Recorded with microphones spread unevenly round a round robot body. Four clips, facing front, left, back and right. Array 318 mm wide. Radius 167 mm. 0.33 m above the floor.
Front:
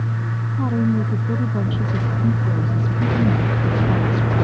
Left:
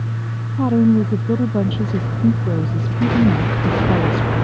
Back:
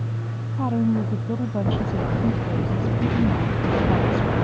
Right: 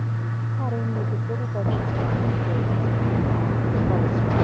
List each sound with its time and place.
0.6 s a woman speaking: 90° left